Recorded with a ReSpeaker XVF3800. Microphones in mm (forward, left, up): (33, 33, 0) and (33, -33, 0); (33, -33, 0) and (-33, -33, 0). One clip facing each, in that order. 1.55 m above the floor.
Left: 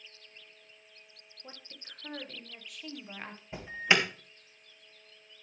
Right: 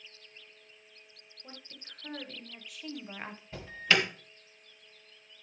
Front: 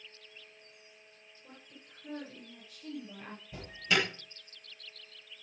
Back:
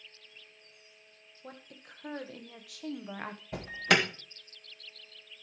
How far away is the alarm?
About 1.9 m.